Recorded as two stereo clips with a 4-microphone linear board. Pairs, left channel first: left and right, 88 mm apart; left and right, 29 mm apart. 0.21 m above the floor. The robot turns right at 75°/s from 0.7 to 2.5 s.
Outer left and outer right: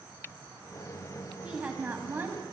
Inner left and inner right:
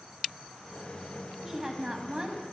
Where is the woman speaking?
10° right (ahead or behind), 1.0 m; by 2.4 s 25° right (ahead or behind), 1.0 m.